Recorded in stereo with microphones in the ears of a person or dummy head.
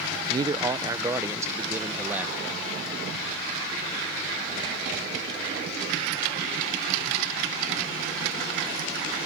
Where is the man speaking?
20° right (ahead or behind); by 2.6 s 5° right (ahead or behind).